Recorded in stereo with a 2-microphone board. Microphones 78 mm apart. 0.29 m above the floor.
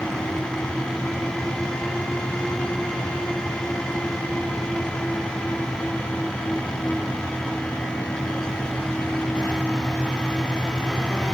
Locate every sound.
Only background noise.